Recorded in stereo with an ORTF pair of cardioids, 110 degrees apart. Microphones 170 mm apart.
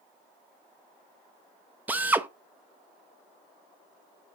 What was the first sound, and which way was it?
A drill, 10° right.